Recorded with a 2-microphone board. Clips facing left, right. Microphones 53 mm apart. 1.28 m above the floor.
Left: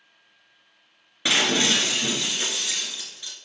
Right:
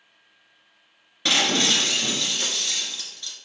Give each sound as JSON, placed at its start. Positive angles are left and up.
{"t": 1.2, "sound": "breaking glass", "side_deg": 15, "distance_m": 1.6}